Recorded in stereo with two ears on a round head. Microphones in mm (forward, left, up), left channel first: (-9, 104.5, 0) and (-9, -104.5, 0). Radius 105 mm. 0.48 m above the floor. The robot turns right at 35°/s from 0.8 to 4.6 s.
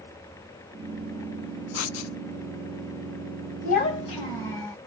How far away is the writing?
About 0.7 m.